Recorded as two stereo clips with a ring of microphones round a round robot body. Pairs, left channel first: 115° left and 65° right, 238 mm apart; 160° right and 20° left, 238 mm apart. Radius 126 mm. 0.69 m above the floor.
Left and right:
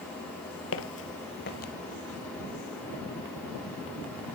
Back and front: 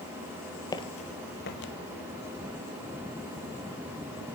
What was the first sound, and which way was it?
Footsteps, 130° left.